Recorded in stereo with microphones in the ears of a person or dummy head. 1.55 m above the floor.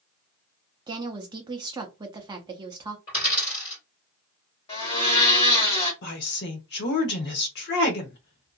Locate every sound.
0.9 s a woman speaking: 20° right (ahead or behind), 0.6 m
3.1 s a dropped coin: 30° left (ahead or behind), 2.0 m
4.7 s a blender: 25° left (ahead or behind), 1.4 m
6.0 s a woman speaking: 55° left (ahead or behind), 0.8 m